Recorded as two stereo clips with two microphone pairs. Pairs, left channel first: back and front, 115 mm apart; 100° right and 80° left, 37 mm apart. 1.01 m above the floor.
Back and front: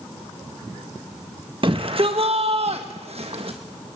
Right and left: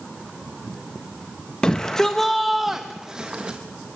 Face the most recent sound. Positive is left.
turn(degrees=25)